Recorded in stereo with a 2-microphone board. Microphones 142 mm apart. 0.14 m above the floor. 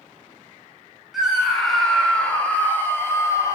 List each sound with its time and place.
1.1 s a scream: centre (ahead or behind), 2.5 m; by 3.6 s 20° left (ahead or behind), 2 m